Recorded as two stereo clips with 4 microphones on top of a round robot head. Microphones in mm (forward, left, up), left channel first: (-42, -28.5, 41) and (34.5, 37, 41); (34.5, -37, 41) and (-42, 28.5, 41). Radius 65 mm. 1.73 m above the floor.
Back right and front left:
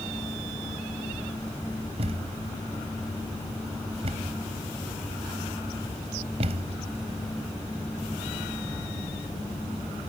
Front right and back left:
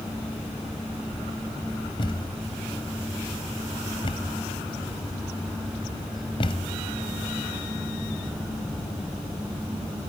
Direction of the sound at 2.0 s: 5° left.